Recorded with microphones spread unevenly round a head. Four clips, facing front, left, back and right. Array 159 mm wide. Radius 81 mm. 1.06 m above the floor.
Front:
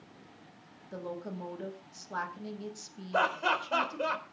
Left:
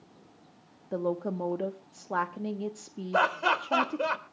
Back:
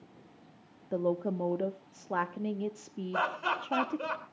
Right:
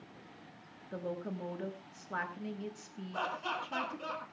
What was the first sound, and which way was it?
A woman speaking, 135° left.